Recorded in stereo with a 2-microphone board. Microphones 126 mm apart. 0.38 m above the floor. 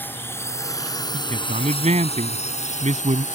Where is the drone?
15° left (ahead or behind); by 3.4 s 75° left (ahead or behind).